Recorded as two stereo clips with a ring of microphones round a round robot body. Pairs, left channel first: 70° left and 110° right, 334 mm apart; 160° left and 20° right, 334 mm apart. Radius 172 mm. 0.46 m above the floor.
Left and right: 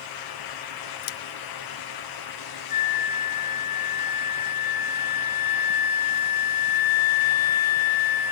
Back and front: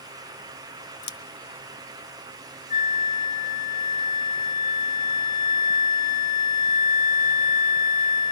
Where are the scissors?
120° left, 1.0 m.